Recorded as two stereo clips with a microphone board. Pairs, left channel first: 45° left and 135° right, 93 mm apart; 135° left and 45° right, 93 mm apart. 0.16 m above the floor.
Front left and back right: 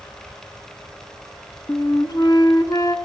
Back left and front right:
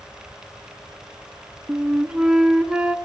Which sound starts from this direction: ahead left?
A flute, at 1.7 s.